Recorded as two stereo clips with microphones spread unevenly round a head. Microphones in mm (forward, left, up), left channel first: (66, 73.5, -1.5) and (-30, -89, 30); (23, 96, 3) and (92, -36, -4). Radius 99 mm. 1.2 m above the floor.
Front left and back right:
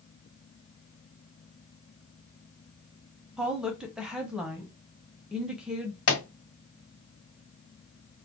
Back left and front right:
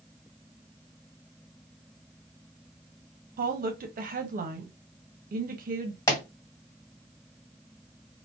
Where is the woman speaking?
35° right, 0.6 m.